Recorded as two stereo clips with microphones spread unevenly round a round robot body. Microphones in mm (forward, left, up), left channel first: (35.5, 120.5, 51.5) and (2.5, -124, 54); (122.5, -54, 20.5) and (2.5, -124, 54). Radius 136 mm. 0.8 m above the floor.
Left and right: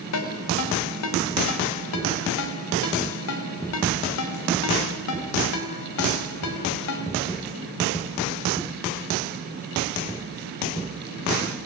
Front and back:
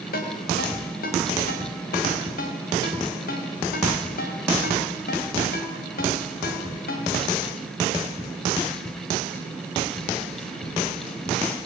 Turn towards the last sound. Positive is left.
turn(degrees=60)